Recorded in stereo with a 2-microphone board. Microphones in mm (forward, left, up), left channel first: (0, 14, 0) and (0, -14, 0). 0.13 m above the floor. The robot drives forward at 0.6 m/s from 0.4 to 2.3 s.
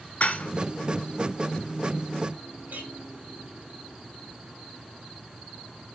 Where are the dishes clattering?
50° left (ahead or behind), 1.3 m; by 0.5 s 45° left (ahead or behind), 1.4 m.